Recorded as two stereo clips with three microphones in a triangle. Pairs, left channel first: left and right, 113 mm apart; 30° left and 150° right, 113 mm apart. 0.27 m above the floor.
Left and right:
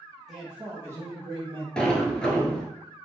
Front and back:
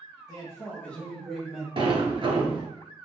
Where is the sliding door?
175° left, 0.7 m.